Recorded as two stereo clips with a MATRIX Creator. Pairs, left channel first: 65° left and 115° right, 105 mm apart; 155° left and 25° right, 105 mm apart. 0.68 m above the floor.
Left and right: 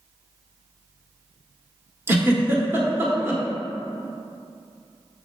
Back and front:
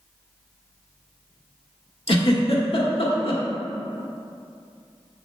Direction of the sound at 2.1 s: Straight behind.